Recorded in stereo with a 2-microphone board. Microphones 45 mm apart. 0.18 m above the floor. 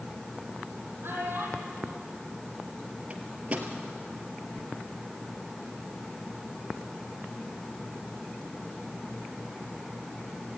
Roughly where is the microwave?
Right.